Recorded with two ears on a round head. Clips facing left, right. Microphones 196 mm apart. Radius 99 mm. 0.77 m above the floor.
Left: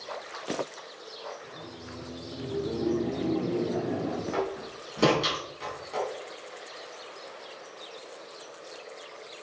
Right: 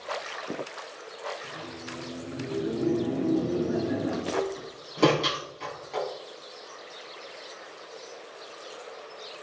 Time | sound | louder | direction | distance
1.4 | laughter | right 3 dB | 15° right (ahead or behind) | 1.7 m
4.3 | a door slam | right 1 dB | 10° left (ahead or behind) | 5 m